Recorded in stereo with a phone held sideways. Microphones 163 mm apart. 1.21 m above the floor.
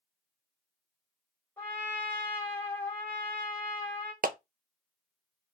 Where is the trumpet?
15° left (ahead or behind), 2 m.